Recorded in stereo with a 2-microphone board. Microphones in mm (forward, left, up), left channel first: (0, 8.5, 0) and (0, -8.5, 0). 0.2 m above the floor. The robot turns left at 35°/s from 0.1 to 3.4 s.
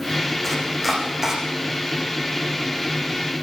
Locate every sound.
0.4 s chopping: 5° left (ahead or behind), 10 m; by 1.4 s 25° right (ahead or behind), 10 m